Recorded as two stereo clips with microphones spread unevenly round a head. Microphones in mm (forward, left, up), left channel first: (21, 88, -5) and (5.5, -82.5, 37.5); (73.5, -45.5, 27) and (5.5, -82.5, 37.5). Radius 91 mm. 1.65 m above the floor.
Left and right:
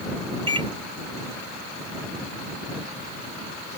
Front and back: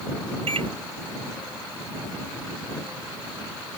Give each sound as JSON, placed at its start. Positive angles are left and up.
{"t": 0.5, "sound": "a microwave", "azimuth_deg": -160}